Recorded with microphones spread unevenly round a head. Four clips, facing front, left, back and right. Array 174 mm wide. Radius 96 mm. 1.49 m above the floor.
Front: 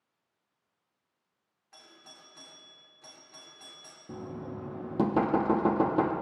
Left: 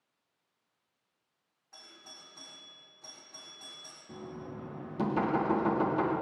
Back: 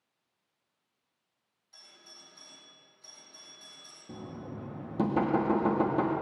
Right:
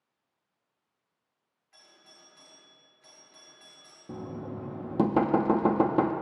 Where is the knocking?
70° right, 1.3 m.